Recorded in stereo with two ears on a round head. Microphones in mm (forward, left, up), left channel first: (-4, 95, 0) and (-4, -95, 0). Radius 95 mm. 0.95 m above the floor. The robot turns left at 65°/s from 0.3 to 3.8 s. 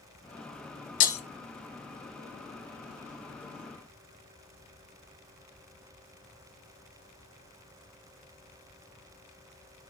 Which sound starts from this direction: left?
Breaking glass, at 1.0 s.